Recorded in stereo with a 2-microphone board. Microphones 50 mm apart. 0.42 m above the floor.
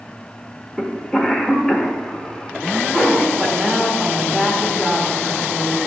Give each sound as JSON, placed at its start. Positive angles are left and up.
{"t": 0.8, "sound": "a cough", "side_deg": 10, "distance_m": 1.0}
{"t": 3.4, "sound": "a woman speaking", "side_deg": 0, "distance_m": 1.0}